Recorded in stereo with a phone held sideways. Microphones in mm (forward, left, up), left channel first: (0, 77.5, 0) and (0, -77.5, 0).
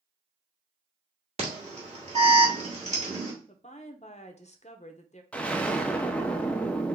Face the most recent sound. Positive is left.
turn(degrees=10)  # may be behind; listen again after turning